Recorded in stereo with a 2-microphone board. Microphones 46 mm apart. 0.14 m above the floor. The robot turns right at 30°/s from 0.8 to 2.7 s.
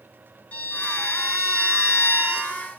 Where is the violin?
60° left, 2 m; by 2.6 s 115° left, 2 m.